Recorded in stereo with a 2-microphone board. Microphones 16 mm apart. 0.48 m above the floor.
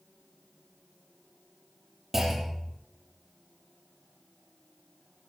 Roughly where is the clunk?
Right.